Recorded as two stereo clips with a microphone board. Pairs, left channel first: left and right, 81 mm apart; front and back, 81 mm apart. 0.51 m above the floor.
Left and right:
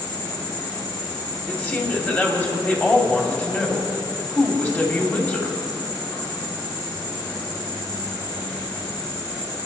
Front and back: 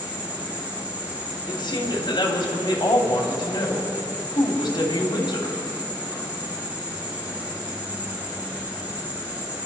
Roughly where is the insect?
Behind left.